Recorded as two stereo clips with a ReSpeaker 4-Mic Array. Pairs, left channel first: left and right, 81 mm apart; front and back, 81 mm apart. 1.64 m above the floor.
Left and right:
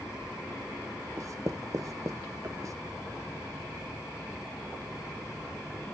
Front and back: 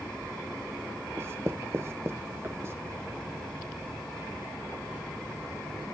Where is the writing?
130° right, 0.8 m.